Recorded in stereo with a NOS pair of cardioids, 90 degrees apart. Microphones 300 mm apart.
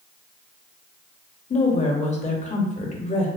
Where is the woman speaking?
25° left, 0.7 m.